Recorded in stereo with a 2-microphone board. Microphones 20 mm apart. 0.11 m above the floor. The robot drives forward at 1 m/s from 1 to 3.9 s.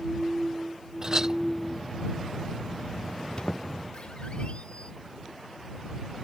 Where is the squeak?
50° left (ahead or behind); by 4.9 s 65° left (ahead or behind).